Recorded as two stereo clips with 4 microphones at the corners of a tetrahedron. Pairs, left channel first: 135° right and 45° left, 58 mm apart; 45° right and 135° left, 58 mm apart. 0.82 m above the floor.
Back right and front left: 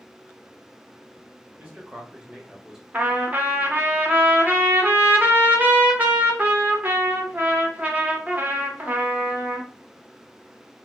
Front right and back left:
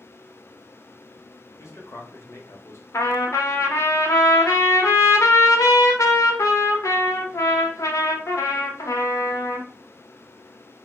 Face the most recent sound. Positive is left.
turn(degrees=-15)